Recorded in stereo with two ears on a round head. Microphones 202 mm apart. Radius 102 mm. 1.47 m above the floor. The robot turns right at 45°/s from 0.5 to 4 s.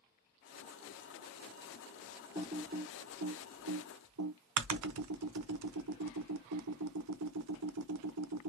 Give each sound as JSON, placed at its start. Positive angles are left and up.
{"t": 2.4, "sound": "typing on a keyboard", "side_deg": -25, "distance_m": 0.6}